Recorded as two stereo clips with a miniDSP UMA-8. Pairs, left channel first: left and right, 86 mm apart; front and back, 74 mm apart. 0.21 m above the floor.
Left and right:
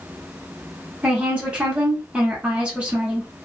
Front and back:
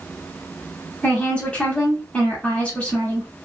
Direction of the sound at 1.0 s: 40° right.